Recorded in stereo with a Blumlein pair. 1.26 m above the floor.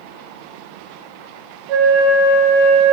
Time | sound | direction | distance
1.7 | a flute | 40° right | 0.6 m